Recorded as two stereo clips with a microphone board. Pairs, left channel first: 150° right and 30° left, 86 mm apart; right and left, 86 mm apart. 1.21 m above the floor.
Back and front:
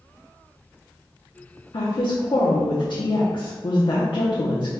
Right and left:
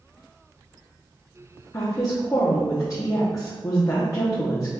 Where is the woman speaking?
140° right, 0.8 m.